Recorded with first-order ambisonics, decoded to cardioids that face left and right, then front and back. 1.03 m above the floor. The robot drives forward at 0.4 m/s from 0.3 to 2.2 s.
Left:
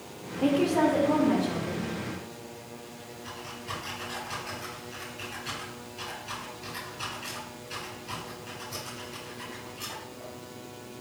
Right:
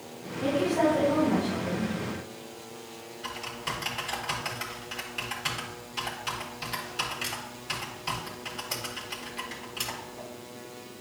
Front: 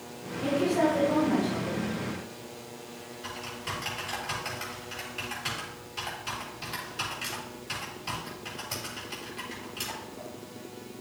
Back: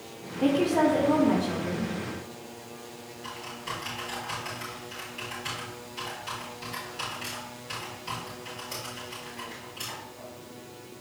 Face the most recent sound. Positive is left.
turn(degrees=-75)